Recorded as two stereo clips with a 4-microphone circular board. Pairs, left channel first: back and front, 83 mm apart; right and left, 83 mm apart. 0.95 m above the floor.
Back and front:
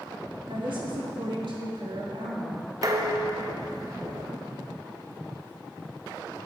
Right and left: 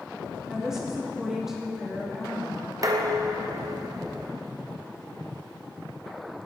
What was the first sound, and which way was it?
A woman speaking, 5° left.